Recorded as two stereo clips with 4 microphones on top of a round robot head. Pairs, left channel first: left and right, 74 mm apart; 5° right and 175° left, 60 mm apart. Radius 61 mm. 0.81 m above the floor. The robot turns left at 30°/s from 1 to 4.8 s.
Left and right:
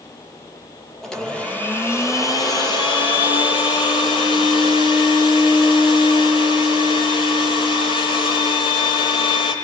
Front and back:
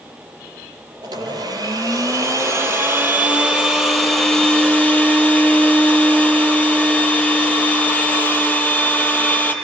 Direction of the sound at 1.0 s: 175° left.